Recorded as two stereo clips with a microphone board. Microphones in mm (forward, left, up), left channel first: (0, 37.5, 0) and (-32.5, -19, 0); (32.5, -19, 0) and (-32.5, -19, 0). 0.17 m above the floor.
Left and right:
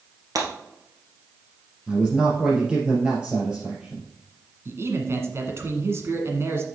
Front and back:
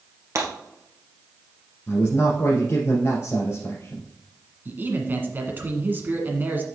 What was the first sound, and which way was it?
Breaking glass, 140° right.